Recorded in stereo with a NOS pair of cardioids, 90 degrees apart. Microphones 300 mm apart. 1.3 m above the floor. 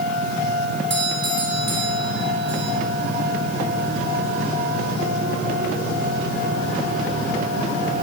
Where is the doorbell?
40° right, 6.5 m.